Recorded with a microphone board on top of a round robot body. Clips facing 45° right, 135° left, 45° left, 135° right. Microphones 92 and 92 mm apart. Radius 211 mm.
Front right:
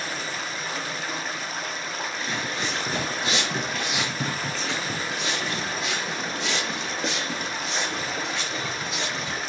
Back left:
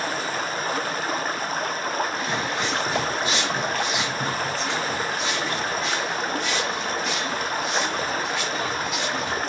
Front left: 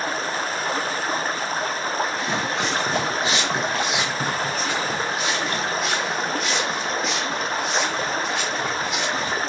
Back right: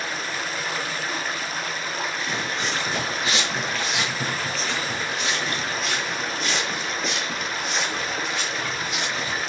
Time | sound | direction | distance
0.0 | running water | 95° left | 0.9 m
2.2 | footsteps | 65° left | 0.7 m